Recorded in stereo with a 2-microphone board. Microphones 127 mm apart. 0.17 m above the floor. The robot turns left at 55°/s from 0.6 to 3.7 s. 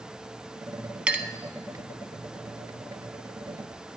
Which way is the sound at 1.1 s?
10° right (ahead or behind).